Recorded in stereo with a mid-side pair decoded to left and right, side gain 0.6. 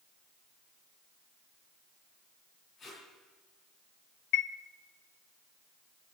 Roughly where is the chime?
Ahead left.